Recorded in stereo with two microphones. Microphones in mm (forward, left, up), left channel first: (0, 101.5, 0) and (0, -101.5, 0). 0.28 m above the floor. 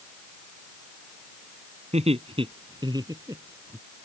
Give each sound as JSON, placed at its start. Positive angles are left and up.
{"t": 1.9, "sound": "laughter", "side_deg": -35}